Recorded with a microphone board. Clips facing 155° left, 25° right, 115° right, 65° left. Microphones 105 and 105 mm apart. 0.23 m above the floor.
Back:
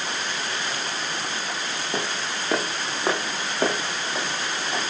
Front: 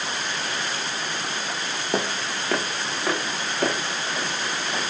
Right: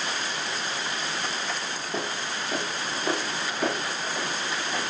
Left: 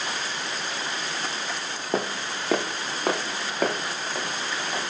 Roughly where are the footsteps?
Ahead left.